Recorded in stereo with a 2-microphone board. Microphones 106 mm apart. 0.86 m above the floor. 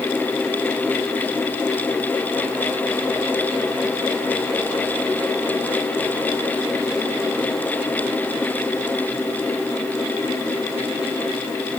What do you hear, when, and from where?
Only background noise.